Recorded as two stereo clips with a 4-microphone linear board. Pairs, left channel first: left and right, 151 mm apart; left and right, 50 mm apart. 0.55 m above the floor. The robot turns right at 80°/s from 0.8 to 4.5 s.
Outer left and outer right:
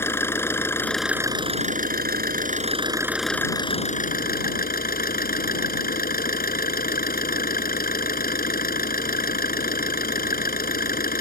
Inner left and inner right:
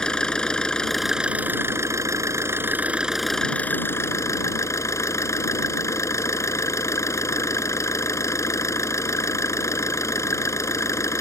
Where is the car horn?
I don't hear a car horn.